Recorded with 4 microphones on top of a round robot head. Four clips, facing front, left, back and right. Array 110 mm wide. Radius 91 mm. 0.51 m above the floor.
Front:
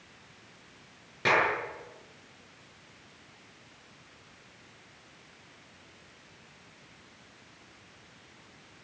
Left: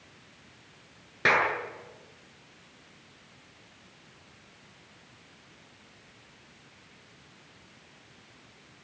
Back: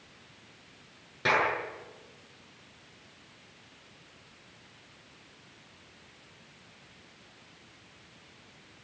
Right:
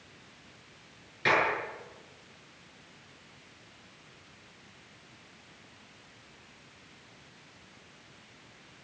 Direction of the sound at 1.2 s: 85° left.